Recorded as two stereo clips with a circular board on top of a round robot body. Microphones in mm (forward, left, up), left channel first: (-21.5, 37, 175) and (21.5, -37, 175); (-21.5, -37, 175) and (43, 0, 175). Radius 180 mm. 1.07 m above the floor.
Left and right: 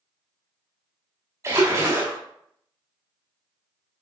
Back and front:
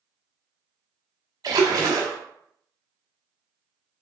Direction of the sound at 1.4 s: 5° right.